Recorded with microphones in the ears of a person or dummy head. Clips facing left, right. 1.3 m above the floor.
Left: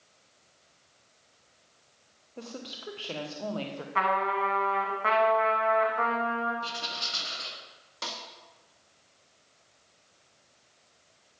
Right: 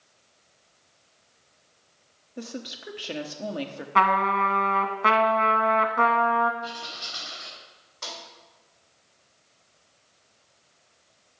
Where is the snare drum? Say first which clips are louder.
Even; 55° left (ahead or behind), 1.8 m.